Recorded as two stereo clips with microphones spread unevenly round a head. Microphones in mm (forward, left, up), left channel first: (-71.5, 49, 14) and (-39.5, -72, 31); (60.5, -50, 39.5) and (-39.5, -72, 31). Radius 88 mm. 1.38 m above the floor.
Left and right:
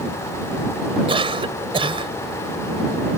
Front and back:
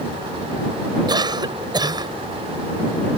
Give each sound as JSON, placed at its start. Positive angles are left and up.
{"t": 1.1, "sound": "a cough", "azimuth_deg": -120}